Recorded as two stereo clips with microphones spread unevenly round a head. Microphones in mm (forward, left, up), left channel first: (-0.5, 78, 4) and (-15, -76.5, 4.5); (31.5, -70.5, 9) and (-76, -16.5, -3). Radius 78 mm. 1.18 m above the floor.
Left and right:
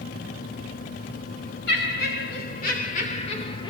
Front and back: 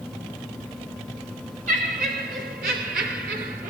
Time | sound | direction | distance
1.7 | laughter | 105° left | 4 m